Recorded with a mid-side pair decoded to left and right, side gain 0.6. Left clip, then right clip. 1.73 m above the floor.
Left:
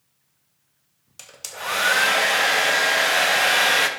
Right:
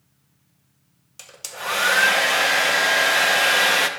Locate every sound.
1.2 s a hair dryer: straight ahead, 0.7 m